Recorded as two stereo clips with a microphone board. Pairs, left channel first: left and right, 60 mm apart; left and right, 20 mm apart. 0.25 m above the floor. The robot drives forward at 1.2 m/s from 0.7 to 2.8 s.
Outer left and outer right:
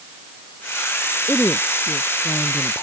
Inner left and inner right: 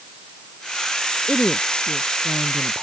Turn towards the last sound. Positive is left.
turn(degrees=50)  # may be behind; listen again after turning